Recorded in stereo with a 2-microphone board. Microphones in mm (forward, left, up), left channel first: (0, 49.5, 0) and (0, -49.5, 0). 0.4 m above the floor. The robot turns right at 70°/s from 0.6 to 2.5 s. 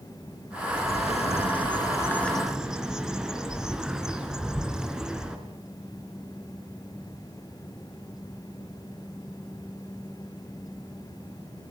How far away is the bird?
About 3.5 m.